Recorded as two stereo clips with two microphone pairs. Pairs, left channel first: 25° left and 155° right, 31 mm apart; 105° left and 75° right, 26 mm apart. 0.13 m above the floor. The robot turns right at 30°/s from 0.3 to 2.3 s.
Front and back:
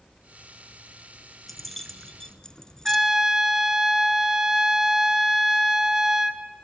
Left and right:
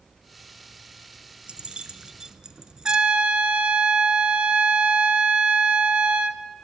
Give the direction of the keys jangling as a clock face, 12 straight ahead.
2 o'clock.